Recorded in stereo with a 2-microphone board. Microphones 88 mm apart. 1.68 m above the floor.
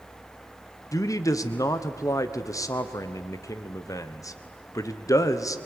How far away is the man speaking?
About 1.1 m.